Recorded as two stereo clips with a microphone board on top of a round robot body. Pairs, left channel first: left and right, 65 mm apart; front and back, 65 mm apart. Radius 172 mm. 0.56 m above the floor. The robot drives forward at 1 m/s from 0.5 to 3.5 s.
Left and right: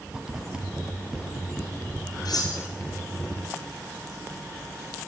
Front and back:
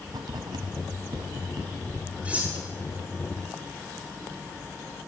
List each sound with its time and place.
0.1 s writing: 170° right, 1.2 m; by 2.1 s 175° right, 2.5 m
2.2 s cutlery clinking: 110° left, 2.5 m; by 2.6 s 115° left, 3 m